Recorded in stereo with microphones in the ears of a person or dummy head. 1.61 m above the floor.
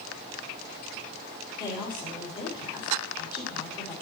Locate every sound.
1.6 s a woman speaking: 25° left (ahead or behind), 3 m